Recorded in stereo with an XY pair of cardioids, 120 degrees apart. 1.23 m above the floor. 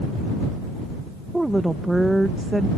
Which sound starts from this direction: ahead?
A woman speaking, at 1.3 s.